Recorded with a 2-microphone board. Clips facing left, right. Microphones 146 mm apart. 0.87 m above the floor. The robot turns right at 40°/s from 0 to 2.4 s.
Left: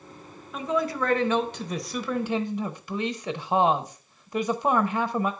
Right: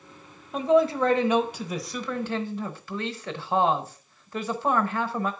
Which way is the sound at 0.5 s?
55° right.